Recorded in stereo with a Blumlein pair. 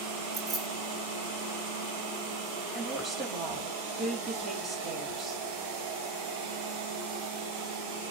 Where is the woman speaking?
15° right, 4 m.